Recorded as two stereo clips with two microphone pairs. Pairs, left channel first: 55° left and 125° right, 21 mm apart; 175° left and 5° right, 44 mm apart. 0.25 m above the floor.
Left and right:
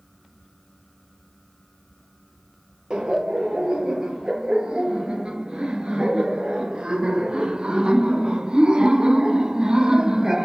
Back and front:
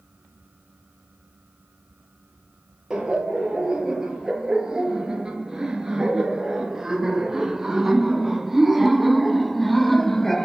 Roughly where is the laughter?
Right.